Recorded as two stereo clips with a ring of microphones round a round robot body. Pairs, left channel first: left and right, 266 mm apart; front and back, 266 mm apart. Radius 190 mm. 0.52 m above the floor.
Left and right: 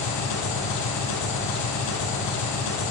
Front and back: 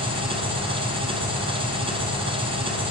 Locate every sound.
0.0 s an engine running: 110° left, 2.5 m